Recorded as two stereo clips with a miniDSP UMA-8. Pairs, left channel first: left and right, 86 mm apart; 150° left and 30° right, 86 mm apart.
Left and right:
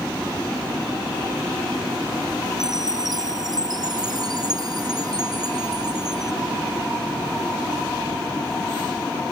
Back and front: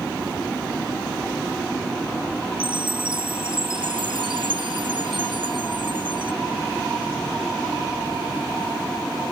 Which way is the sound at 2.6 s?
50° right.